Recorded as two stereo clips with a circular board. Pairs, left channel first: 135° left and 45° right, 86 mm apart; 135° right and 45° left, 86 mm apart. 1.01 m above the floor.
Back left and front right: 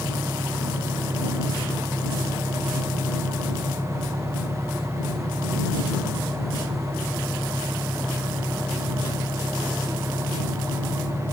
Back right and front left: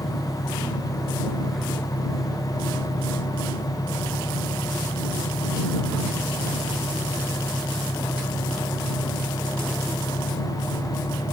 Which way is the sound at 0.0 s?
165° right.